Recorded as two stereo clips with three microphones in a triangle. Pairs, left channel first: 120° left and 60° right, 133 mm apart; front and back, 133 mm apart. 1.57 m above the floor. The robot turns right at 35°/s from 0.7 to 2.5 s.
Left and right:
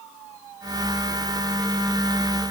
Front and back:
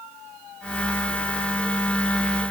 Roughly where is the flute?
I don't hear a flute.